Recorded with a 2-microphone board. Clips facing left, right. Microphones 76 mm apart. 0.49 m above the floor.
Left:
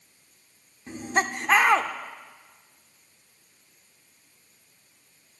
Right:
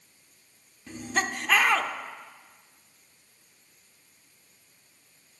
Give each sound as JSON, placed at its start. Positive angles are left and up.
{"t": 0.9, "sound": "laughter", "side_deg": 30, "distance_m": 0.9}